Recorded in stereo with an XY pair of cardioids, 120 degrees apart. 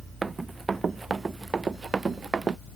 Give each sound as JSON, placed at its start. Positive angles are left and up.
{"t": 0.2, "sound": "running footsteps", "azimuth_deg": -25}